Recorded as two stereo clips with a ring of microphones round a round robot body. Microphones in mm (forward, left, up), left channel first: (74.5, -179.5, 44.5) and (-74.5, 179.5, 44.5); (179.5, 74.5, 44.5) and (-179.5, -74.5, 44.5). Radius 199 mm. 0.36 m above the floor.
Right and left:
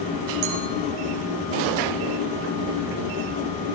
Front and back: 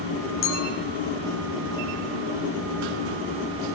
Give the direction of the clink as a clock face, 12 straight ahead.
9 o'clock.